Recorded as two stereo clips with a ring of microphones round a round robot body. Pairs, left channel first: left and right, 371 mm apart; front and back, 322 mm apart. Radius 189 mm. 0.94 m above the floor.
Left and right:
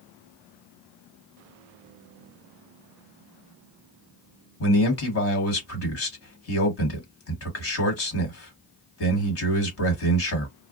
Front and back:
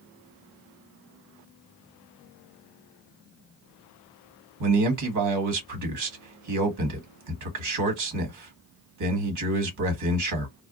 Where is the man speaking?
145° left, 1.6 m.